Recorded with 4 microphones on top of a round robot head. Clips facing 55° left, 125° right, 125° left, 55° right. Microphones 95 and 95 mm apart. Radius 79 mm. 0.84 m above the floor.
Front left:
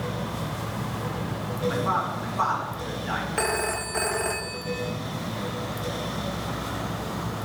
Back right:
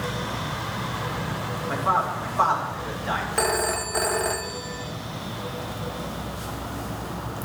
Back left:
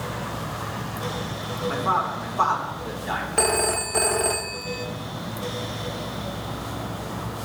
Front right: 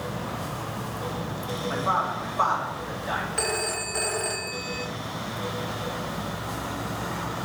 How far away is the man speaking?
About 2.5 m.